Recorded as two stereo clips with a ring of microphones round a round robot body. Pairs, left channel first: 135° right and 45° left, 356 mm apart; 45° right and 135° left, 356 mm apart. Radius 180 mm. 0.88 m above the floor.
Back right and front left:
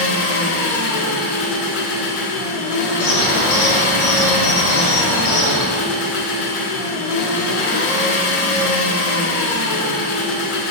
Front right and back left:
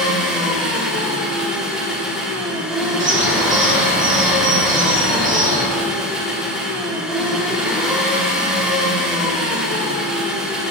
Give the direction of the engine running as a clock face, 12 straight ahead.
5 o'clock.